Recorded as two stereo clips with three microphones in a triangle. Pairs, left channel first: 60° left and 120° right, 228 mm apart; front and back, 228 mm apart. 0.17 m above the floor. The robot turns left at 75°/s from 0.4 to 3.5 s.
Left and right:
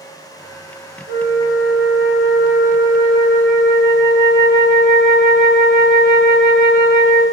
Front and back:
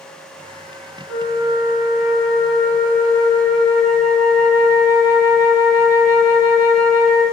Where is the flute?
65° left, 1.1 m; by 7.2 s 115° right, 1.1 m.